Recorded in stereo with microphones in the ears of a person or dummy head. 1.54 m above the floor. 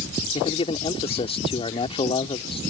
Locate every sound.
0.3 s a man speaking: 30° left (ahead or behind)